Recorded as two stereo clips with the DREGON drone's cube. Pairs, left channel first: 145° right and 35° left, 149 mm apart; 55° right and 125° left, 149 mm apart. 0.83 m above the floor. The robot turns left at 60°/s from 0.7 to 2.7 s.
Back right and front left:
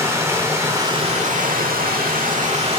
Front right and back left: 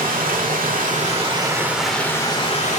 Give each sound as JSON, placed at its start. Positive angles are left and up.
{"t": 0.0, "sound": "running water", "azimuth_deg": 105, "distance_m": 1.5}